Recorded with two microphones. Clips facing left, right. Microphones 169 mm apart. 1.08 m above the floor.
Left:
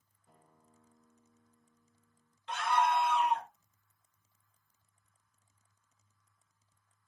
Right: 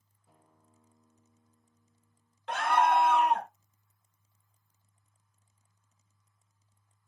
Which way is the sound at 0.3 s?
5° right (ahead or behind).